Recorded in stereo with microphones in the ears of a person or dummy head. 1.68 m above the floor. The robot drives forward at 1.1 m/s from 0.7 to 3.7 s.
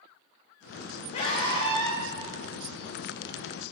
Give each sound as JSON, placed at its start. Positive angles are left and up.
{"t": 1.1, "sound": "a scream", "side_deg": 45, "distance_m": 1.3}